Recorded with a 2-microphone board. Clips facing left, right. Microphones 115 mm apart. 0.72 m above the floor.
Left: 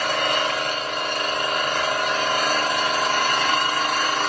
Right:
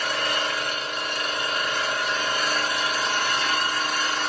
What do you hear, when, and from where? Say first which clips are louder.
0.0 s an engine running: left 4 dB; 60° left (ahead or behind), 0.8 m